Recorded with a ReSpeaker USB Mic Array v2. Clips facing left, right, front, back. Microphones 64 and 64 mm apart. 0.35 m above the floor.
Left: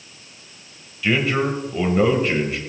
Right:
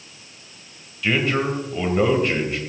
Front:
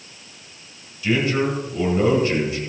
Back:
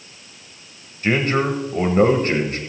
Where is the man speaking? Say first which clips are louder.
Left 1 dB, back 1 dB; straight behind, 1.9 m.